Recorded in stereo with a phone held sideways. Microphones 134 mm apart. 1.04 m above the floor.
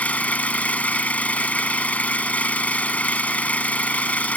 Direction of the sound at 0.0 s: 10° left (ahead or behind).